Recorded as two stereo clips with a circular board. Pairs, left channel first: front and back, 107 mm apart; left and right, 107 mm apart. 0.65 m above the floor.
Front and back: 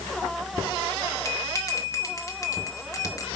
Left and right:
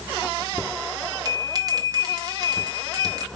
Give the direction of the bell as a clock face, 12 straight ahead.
2 o'clock.